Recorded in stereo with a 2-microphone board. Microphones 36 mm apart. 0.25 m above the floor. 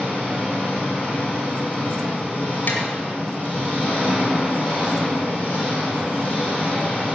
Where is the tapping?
55° left (ahead or behind), 2 m.